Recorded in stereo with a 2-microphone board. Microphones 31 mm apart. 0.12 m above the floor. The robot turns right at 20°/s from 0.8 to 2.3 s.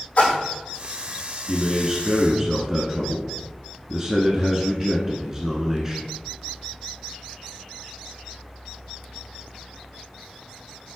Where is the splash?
55° left (ahead or behind), 2.5 m.